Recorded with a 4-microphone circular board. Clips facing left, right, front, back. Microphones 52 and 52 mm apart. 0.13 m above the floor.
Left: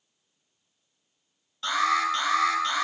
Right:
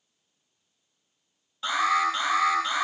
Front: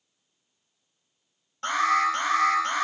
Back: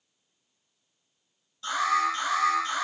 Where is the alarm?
5° right, 5.5 m.